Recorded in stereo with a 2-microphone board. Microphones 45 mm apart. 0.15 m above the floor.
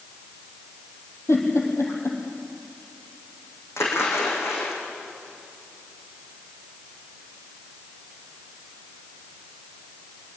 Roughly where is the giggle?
Left.